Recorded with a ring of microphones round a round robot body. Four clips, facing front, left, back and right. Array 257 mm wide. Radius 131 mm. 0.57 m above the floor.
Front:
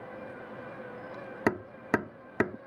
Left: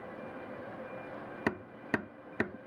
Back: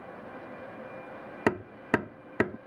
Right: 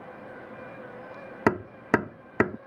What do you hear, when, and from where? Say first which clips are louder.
1.5 s hammering: right 11 dB, back 1 dB; 95° right